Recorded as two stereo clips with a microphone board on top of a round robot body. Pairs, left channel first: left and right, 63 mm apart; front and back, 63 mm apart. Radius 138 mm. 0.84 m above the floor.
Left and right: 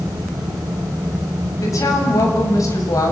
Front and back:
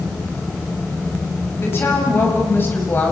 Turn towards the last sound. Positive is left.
turn(degrees=60)